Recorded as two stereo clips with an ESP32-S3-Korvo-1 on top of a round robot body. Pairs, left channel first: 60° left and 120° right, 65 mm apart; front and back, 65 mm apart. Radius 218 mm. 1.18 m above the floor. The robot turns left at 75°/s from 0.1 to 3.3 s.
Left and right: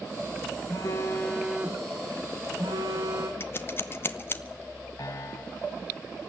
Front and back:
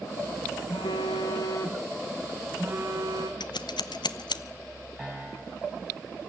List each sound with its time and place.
0.7 s a phone buzzing: 20° left, 0.5 m; by 3.3 s 175° right, 0.5 m
3.4 s scissors: 5° left, 0.6 m
5.0 s a piano: 100° left, 1.8 m